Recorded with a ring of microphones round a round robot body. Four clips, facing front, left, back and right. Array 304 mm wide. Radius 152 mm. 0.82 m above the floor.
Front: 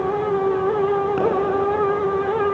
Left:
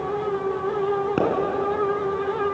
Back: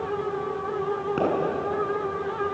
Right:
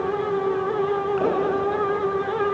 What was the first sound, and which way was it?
A pop, 90° left.